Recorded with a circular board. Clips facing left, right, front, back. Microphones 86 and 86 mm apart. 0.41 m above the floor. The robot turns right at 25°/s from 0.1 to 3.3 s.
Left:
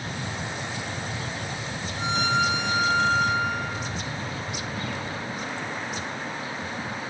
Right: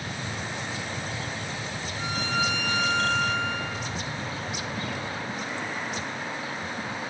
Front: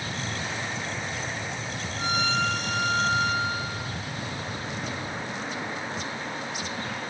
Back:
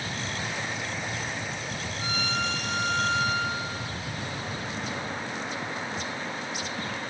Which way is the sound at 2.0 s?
15° left.